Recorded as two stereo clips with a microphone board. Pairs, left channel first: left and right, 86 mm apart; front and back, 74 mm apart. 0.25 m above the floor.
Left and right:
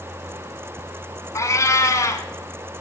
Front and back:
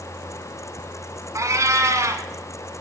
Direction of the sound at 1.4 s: 140° left.